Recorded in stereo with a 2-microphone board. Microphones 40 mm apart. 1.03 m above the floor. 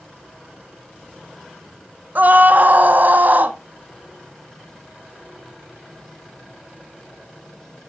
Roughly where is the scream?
Right.